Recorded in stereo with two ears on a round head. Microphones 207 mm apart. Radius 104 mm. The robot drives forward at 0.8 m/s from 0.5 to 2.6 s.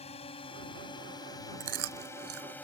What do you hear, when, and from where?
0.0 s a drone: 25° left (ahead or behind); by 2.6 s 5° left (ahead or behind)
1.6 s chewing: 50° right (ahead or behind); by 2.6 s 70° right (ahead or behind)